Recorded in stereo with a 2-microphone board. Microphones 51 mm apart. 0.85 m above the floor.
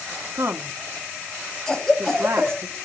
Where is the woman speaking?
60° right (ahead or behind), 1.4 m.